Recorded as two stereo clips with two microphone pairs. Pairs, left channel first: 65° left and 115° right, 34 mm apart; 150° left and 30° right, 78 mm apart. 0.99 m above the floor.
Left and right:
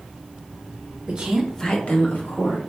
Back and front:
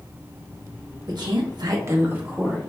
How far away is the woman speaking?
About 0.8 m.